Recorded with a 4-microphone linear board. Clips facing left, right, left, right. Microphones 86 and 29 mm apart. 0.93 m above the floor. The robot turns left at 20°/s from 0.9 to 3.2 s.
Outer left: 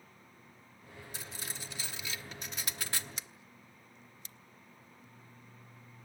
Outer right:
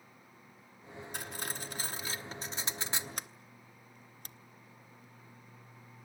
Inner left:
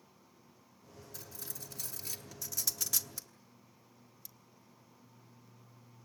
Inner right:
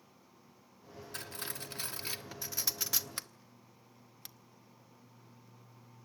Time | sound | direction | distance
1.1 | cutlery clinking | 55° right (ahead or behind) | 0.8 m
3.2 | a sliding door | 50° right (ahead or behind) | 0.6 m